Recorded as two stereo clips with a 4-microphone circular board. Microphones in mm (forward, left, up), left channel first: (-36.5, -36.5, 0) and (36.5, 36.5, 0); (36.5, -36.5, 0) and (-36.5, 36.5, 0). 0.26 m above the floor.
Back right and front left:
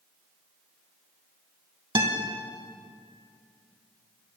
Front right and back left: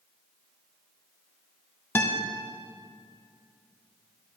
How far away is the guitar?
About 0.9 m.